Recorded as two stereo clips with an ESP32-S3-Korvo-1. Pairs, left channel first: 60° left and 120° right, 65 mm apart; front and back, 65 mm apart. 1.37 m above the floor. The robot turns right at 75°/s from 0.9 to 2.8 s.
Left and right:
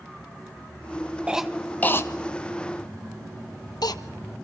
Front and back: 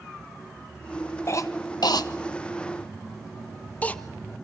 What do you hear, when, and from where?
1.3 s a cough: 45° right, 1.3 m; by 4.0 s 70° left, 1.3 m